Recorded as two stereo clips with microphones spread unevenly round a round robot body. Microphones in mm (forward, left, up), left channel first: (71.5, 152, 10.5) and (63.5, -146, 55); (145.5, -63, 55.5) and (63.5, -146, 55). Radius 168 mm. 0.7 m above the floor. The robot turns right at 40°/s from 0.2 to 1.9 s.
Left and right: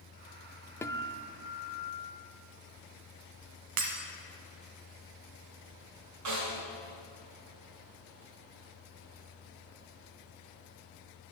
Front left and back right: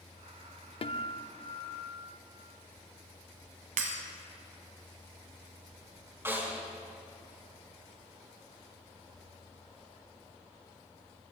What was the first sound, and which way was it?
A guitar, 5° left.